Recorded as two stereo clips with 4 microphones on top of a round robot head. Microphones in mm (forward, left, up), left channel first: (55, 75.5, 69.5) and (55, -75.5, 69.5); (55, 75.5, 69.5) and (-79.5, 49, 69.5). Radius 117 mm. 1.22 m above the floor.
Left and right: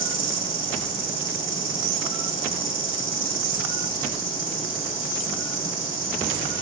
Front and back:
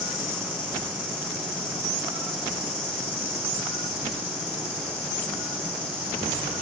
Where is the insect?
55° right, 3.5 m.